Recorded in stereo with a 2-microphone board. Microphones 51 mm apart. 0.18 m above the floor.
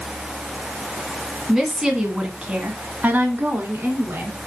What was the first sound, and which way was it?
A woman speaking, 5° right (ahead or behind).